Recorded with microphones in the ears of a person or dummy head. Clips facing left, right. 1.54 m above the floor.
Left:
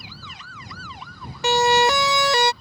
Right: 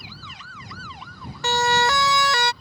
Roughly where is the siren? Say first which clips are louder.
Left 4 dB; centre.